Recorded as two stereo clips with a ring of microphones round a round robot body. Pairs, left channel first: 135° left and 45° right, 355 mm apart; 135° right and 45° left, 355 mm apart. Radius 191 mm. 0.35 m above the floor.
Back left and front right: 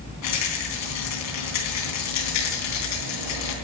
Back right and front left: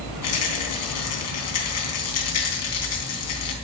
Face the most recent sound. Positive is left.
turn(degrees=180)